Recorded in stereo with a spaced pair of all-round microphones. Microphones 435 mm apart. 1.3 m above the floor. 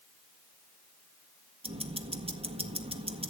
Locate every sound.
1.6 s ticking: 15° right (ahead or behind), 1.6 m